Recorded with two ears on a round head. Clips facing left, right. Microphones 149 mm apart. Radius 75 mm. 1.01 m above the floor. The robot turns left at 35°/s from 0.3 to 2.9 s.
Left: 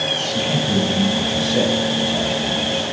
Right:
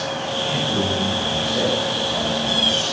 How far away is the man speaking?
About 6 m.